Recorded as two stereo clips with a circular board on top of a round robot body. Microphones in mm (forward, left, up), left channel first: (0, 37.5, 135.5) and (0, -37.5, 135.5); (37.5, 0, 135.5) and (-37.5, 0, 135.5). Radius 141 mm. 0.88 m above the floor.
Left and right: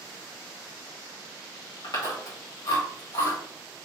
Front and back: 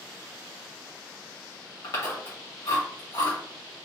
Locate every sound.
1.8 s chewing: 45° left, 1.1 m